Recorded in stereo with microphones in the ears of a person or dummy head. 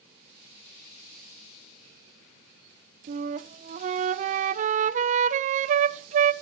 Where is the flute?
40° right (ahead or behind), 1.2 m.